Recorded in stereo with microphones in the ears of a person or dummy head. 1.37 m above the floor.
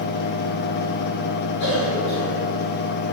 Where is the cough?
75° left (ahead or behind), 2 m.